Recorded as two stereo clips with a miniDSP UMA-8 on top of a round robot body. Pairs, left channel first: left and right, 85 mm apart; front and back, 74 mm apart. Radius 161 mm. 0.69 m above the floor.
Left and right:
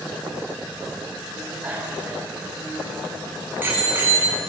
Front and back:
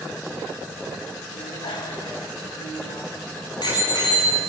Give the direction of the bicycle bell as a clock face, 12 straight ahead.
12 o'clock.